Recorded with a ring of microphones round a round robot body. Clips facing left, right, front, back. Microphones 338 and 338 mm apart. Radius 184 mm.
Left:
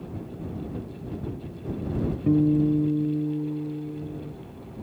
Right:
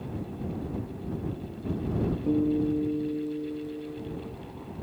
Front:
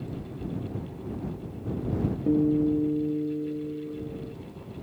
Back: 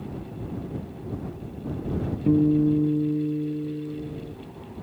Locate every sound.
2.3 s a guitar: 125° left